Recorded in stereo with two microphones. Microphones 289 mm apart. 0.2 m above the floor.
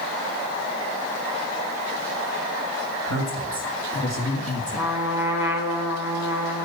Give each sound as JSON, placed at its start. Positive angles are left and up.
{"t": 3.1, "sound": "a woman speaking", "side_deg": 70, "distance_m": 3.0}
{"t": 4.8, "sound": "a trumpet", "side_deg": -10, "distance_m": 1.8}